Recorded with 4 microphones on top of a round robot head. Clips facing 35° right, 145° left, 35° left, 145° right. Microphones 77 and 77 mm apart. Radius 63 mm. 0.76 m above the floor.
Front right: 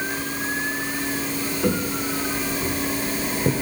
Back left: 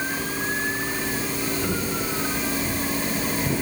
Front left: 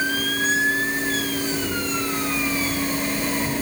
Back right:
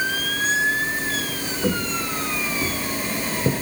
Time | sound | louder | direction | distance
1.6 | footsteps | front right 3 dB, back right 1 dB | 85° right | 5 m